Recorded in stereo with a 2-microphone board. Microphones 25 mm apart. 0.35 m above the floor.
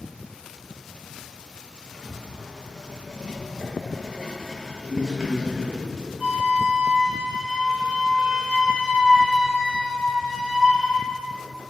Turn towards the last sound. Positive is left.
turn(degrees=-35)  # may be behind; listen again after turning